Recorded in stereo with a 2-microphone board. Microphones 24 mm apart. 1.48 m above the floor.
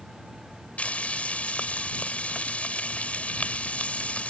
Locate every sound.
0.8 s frying: 65° left (ahead or behind)